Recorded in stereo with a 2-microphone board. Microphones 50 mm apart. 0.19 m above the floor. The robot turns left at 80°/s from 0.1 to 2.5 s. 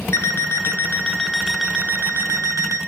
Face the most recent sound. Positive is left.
turn(degrees=-85)